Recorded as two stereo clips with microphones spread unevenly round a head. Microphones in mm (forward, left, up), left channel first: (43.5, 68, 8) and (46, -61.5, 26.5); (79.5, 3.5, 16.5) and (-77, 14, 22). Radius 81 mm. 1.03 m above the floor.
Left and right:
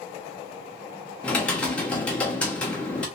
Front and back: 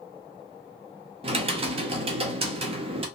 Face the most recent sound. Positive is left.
turn(degrees=155)